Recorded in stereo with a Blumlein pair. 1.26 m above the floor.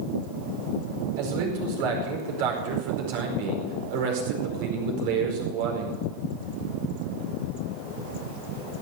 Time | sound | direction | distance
1.2 | a man speaking | 50° right | 4.5 m